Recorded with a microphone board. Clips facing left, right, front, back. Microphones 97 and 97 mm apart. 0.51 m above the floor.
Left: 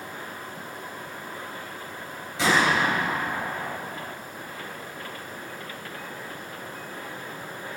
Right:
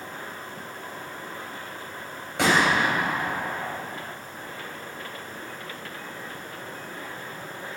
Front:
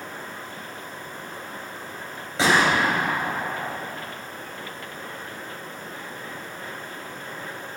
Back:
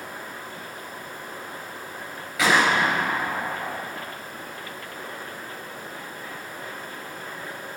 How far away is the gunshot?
About 3 m.